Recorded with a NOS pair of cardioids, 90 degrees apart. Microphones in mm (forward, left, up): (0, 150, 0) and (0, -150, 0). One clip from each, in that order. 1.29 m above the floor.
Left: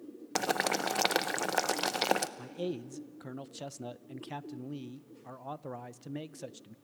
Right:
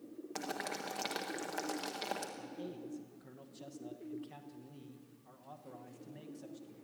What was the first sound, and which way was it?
Boiling, 65° left.